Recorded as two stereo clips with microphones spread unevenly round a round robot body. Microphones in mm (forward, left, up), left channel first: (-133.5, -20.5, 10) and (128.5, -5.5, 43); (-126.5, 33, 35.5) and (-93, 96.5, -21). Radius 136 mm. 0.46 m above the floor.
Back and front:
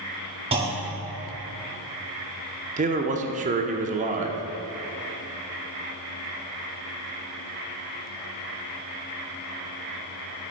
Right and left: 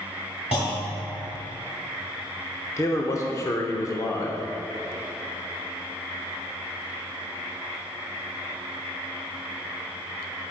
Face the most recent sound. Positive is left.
turn(degrees=-10)